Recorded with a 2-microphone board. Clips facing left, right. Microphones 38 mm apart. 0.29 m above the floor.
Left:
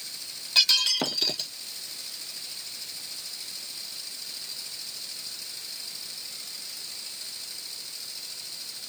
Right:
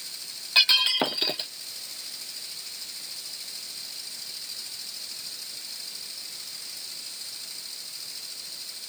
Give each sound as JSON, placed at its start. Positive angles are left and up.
{"t": 0.6, "sound": "breaking glass", "side_deg": -25}